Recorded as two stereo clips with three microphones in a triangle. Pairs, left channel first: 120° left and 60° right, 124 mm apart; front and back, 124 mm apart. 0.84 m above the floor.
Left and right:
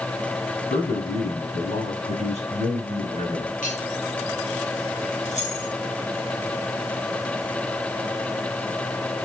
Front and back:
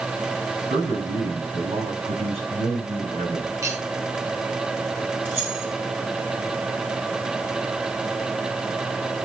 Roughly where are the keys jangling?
Left.